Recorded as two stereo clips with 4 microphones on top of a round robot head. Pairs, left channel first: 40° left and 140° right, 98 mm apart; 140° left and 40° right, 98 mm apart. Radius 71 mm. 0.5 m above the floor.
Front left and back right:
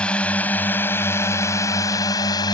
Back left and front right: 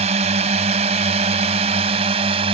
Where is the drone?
40° right; by 2.5 s 10° right.